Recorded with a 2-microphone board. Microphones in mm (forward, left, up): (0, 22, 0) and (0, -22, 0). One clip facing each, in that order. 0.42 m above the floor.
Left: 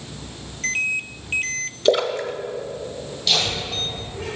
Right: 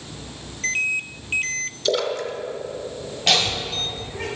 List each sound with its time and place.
1.9 s a splash: 30° left (ahead or behind), 0.7 m
3.3 s laughter: 55° right (ahead or behind), 1.7 m